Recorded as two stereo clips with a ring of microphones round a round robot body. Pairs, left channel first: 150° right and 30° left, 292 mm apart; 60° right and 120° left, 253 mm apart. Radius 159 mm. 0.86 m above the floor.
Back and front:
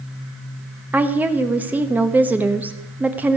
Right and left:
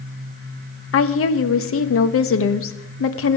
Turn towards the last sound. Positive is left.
turn(degrees=-55)